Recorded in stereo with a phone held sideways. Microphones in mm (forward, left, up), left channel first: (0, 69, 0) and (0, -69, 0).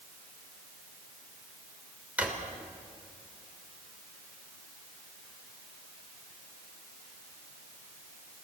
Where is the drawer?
10° right (ahead or behind), 3 m.